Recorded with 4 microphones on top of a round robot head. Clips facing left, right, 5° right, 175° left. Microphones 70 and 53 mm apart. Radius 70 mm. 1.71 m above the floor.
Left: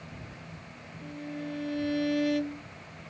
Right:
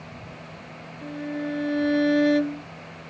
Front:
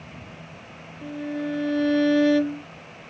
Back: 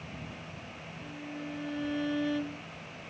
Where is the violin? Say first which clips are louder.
Right 8 dB, front 13 dB; 35° right.